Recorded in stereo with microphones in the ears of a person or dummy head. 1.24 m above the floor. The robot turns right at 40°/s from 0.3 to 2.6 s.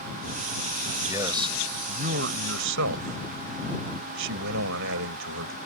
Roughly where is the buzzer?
No buzzer in this recording.